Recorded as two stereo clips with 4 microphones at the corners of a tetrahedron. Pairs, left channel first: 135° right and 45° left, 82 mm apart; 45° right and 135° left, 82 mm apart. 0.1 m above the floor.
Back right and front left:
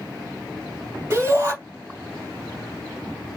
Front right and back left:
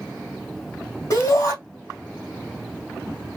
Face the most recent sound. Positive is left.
turn(degrees=-10)